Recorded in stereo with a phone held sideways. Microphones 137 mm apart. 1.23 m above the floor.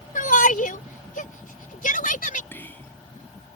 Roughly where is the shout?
Left.